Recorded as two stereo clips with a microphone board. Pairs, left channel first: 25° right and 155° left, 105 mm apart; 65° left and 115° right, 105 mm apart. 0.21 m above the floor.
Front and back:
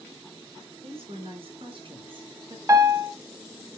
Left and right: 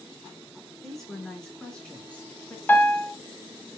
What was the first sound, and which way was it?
A woman speaking, 155° left.